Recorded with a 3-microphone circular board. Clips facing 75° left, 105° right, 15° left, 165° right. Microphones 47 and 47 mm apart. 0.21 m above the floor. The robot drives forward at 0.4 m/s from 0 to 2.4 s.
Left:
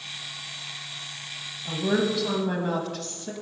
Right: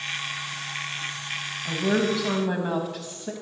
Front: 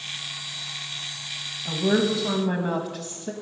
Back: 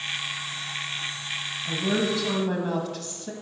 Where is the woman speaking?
25° right, 1.2 m; by 3.3 s 45° right, 1.1 m.